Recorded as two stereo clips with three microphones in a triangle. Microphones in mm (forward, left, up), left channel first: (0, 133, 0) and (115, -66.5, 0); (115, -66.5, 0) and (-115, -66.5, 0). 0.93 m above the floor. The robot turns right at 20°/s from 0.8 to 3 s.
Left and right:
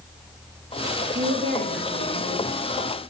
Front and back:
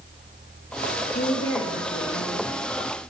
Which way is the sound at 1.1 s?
45° right.